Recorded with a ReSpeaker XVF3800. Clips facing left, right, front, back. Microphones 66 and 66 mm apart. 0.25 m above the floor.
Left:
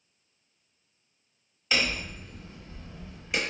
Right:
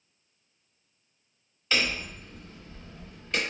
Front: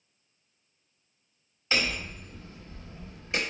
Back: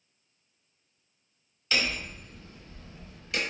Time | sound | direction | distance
1.7 | hammering | 20° left | 0.9 m